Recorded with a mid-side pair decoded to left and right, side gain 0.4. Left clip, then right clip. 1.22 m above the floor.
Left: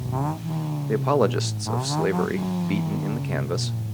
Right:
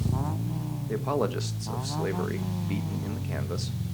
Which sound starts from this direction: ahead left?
A man speaking, at 0.9 s.